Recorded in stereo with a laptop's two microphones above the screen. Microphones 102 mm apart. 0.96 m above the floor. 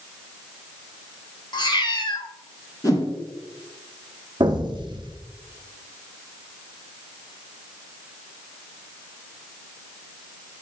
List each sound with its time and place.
1.5 s a cat meowing: 45° left (ahead or behind), 0.9 m
2.8 s a whoosh: 35° left (ahead or behind), 1.8 m
4.4 s an explosion: 45° right (ahead or behind), 0.8 m